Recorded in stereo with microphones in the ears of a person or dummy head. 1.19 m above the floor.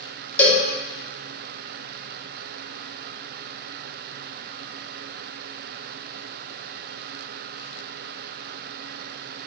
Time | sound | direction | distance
0.4 | a cowbell | 15° left (ahead or behind) | 0.7 m